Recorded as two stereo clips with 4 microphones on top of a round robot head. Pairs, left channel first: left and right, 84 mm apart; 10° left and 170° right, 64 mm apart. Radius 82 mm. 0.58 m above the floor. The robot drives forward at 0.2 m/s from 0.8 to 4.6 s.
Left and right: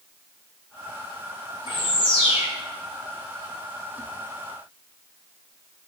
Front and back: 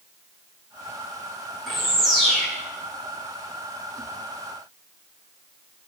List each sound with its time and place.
1.7 s a bird: 95° left, 1.8 m; by 2.5 s 100° left, 1.8 m